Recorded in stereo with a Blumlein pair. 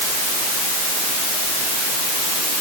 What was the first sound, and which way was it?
Only background noise.